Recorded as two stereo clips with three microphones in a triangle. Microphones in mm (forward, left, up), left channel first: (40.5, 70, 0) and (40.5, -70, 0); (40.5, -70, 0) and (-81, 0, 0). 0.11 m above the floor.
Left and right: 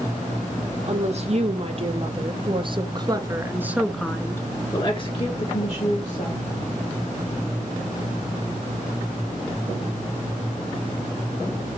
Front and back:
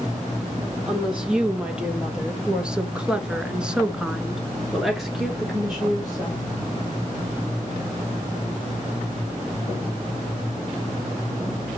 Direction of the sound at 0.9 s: 125° right.